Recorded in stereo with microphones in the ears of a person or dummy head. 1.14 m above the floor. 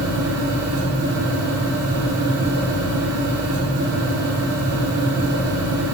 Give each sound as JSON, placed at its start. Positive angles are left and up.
{"t": 0.0, "sound": "a fan", "side_deg": -55, "distance_m": 1.1}